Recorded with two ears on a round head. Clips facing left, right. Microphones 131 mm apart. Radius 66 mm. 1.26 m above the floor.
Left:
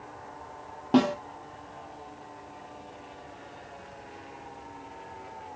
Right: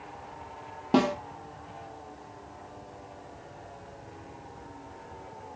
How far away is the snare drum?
About 1.3 m.